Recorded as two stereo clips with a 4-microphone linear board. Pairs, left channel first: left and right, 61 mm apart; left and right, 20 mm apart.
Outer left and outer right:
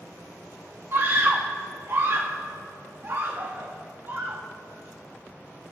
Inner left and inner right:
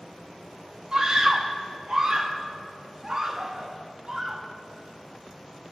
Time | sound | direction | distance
0.9 | a scream | 40° right (ahead or behind) | 0.8 m